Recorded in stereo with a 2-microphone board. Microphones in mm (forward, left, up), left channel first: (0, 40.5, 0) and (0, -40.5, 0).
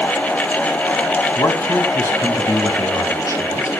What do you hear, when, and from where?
1.4 s a man speaking: 45° left (ahead or behind), 3 m; by 3.7 s 35° left (ahead or behind), 5 m